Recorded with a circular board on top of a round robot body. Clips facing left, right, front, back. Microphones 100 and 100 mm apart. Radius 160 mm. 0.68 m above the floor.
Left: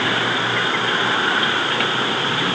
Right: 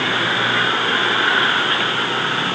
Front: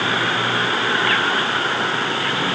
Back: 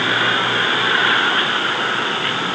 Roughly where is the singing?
No singing in this recording.